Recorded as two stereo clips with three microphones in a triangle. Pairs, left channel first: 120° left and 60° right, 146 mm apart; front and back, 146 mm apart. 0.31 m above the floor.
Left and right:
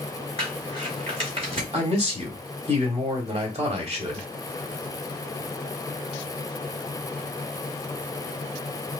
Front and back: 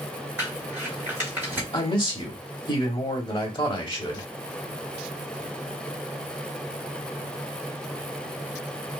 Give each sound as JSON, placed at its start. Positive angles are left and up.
{"t": 0.4, "sound": "crumpling", "azimuth_deg": -105, "distance_m": 2.0}
{"t": 1.7, "sound": "a man speaking", "azimuth_deg": -45, "distance_m": 1.5}